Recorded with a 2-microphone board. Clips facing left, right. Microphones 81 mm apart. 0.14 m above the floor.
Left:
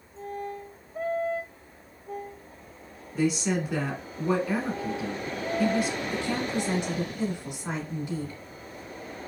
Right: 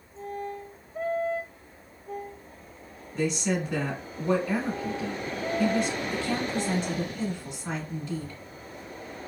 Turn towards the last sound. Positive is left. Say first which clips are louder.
# even
turn(degrees=15)  # may be behind; listen again after turning